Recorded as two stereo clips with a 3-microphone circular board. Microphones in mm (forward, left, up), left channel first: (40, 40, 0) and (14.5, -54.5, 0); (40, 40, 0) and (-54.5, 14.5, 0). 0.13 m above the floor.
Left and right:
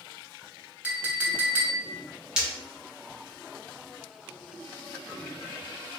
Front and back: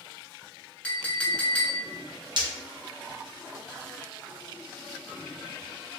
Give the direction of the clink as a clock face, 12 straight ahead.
2 o'clock.